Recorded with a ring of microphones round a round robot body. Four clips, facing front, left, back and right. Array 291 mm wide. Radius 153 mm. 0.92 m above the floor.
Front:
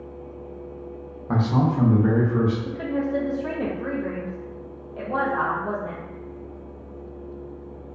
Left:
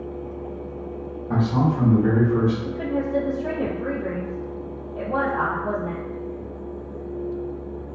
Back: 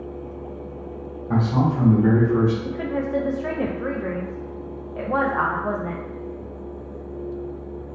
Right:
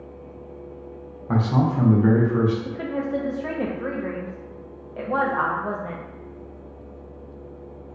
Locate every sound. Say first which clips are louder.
1.3 s a man speaking: even, back 1 dB; 45° right, 0.9 m; by 2.5 s 145° right, 0.8 m
2.6 s a woman speaking: left 2 dB, back 1 dB; 145° right, 0.6 m